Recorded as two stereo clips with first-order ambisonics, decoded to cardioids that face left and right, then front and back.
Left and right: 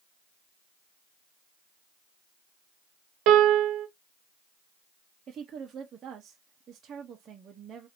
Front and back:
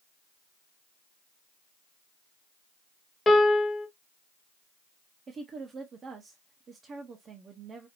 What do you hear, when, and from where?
3.3 s a piano: 75° right, 0.9 m
5.3 s a woman speaking: 130° right, 0.6 m